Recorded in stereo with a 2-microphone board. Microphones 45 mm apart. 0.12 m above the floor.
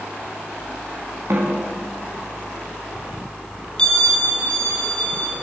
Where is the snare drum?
65° right (ahead or behind), 6.5 m.